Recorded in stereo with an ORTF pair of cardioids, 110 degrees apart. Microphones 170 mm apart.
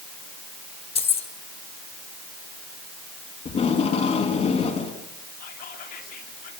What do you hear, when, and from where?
0.9 s keys jangling: 35° left, 2.5 m
3.5 s tape being pulled: 40° left, 4.5 m
5.4 s whispering: 65° left, 7.5 m